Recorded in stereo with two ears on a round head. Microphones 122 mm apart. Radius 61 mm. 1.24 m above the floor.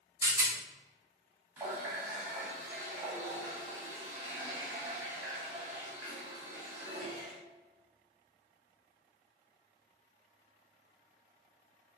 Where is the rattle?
20° right (ahead or behind), 0.7 m.